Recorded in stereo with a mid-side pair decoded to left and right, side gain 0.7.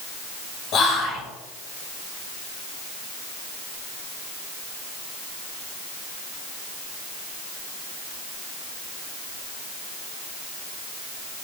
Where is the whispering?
45° left, 0.9 m.